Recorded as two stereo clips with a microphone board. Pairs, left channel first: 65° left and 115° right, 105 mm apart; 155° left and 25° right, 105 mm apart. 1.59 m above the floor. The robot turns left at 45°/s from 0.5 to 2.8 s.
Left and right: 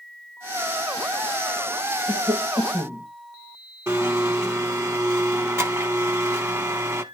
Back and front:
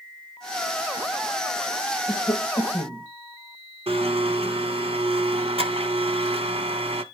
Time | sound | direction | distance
2.1 | a cough | 140° right | 9 m
3.9 | a blender | 50° right | 1.5 m